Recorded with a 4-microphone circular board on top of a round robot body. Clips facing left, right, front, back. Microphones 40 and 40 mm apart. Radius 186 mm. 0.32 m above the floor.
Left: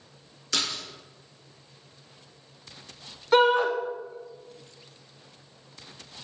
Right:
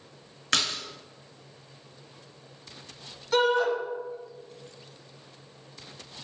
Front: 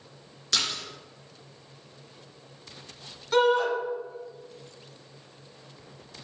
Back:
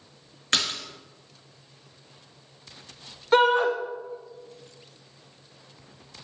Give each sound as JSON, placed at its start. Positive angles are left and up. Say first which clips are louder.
{"t": 0.5, "sound": "a splash", "louder": "right 3 dB, back 2 dB", "azimuth_deg": -125, "distance_m": 0.9}
{"t": 3.3, "sound": "a shout", "louder": "left 3 dB, back 3 dB", "azimuth_deg": 130, "distance_m": 1.5}